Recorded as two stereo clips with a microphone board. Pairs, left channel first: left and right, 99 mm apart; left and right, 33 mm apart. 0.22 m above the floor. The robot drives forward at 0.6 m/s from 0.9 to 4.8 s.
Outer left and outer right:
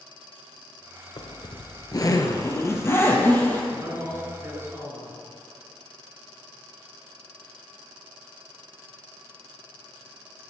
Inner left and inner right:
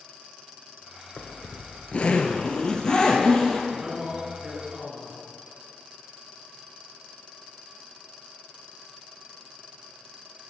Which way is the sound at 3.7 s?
30° right (ahead or behind).